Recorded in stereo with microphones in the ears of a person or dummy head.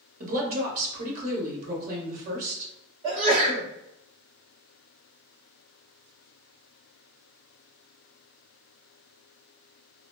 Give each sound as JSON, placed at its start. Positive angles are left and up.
{"t": 0.2, "sound": "a woman speaking", "side_deg": -45, "distance_m": 1.1}
{"t": 3.0, "sound": "a sneeze", "side_deg": -35, "distance_m": 1.3}